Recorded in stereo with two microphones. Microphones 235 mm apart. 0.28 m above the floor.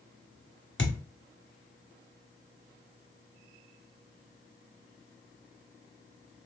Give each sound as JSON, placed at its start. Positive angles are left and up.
{"t": 0.8, "sound": "a thud", "side_deg": 50, "distance_m": 1.1}